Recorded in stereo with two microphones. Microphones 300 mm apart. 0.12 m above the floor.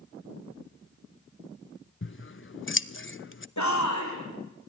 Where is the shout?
65° left (ahead or behind), 5.5 m.